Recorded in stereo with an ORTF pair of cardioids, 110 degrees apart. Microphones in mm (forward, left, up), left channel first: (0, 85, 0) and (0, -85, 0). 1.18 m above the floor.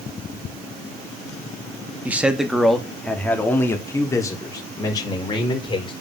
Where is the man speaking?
10° right, 2.5 m; by 5.9 s 25° left, 5 m.